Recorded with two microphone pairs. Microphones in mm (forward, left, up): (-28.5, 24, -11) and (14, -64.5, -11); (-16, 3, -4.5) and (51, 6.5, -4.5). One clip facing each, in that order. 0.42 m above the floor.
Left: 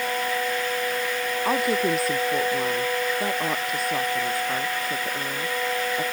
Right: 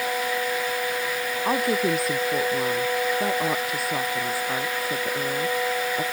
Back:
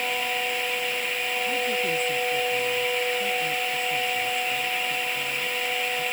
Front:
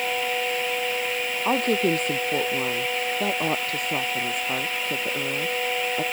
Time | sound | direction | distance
1.4 | a woman speaking | 25° left | ?